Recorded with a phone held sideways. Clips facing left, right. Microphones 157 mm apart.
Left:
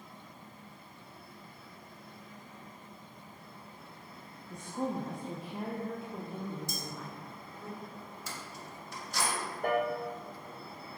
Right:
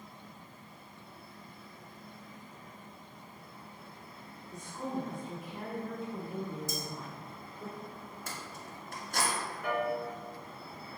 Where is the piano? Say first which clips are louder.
Left 3 dB; 50° left (ahead or behind), 0.8 m.